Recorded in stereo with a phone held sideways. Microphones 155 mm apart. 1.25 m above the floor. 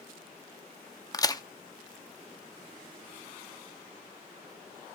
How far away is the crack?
About 0.7 m.